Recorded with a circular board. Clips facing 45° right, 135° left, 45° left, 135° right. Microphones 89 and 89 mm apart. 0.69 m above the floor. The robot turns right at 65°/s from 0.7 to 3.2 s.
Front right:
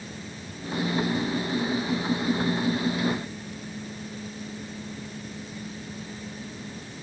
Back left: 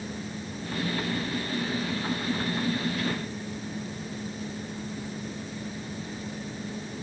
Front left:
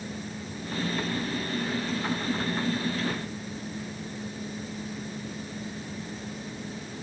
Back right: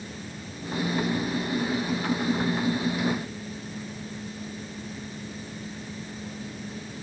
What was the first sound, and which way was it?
Only background noise.